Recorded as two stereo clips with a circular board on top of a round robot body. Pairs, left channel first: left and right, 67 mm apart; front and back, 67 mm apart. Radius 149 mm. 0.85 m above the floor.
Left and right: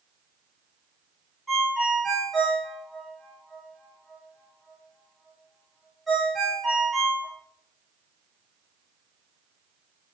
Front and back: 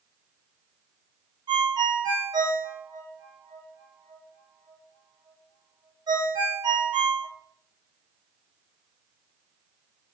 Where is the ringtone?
Straight behind, 0.7 m.